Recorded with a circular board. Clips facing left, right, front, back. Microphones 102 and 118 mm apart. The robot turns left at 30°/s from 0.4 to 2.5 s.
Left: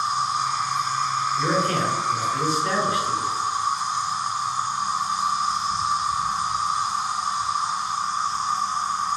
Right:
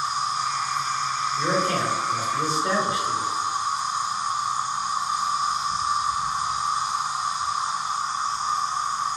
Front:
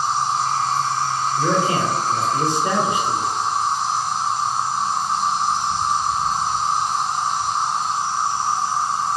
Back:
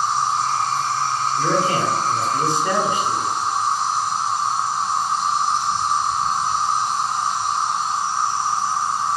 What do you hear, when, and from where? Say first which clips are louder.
0.0 s an insect: left 2 dB, even; 40° left, 1.3 m; by 9.2 s 25° right, 1.3 m
1.4 s a man speaking: even, front 1 dB; 20° right, 1.0 m; by 3.3 s 55° right, 1.0 m